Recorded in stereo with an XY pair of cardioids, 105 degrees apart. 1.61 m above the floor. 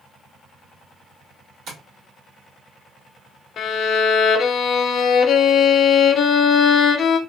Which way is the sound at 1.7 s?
70° right.